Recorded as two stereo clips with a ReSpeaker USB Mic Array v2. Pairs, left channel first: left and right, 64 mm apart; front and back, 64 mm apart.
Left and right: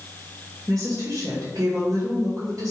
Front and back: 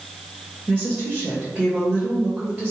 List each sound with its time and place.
0.7 s a woman speaking: 115° right, 2.5 m